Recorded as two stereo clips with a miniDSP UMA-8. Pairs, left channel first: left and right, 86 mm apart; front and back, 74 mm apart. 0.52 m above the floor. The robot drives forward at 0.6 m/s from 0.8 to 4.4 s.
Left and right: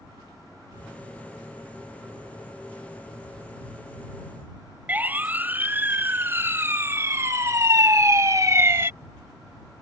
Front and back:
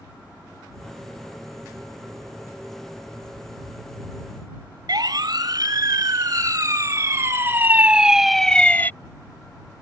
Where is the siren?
160° right; by 8.9 s 50° right.